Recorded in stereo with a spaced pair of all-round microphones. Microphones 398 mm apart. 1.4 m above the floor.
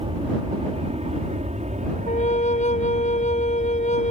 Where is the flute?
15° left (ahead or behind).